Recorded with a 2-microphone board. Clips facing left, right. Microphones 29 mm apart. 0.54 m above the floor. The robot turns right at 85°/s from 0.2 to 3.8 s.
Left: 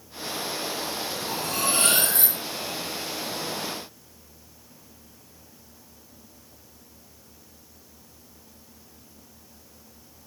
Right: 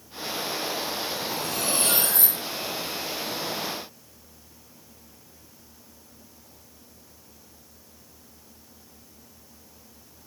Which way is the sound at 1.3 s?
60° left.